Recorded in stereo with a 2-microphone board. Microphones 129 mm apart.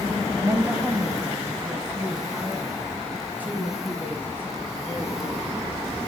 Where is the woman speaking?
20° right (ahead or behind), 1.2 m; by 5.8 s 10° right (ahead or behind), 4.5 m.